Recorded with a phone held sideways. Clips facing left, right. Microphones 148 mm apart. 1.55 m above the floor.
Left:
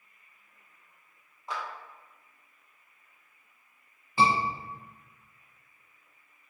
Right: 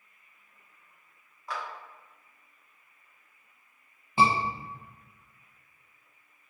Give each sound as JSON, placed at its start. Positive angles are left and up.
{"t": 1.5, "sound": "a clap", "side_deg": 20, "distance_m": 1.0}
{"t": 4.2, "sound": "a scream", "side_deg": -20, "distance_m": 1.1}